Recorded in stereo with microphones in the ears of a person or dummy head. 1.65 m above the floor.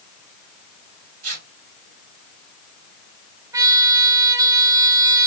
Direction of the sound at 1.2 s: 50° right (ahead or behind).